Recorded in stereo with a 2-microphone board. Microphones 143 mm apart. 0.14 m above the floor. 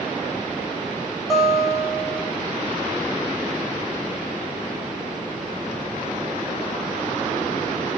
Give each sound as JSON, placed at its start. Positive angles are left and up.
{"t": 1.3, "sound": "a guitar", "side_deg": 0, "distance_m": 1.9}